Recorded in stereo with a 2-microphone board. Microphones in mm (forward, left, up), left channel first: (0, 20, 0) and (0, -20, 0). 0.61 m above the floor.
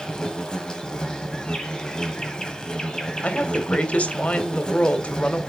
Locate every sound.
0.0 s an insect: 20° left (ahead or behind), 1.5 m
3.2 s a woman speaking: 45° left (ahead or behind), 1.7 m